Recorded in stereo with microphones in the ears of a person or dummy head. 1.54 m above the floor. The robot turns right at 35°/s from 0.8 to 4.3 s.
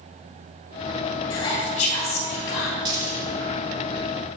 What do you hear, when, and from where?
1.3 s whispering: 25° left, 1.8 m; by 2.8 s 75° left, 1.8 m
2.9 s a dropped coin: 25° right (ahead or behind), 3.5 m; by 3.3 s 10° right (ahead or behind), 3.5 m